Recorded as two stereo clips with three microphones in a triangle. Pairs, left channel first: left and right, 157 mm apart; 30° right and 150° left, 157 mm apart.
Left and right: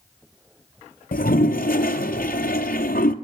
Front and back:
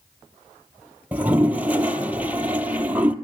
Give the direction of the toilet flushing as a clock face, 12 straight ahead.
10 o'clock.